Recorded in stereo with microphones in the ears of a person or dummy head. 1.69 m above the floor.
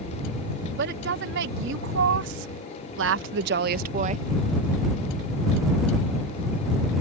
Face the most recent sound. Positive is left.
turn(degrees=-40)  # may be behind; listen again after turning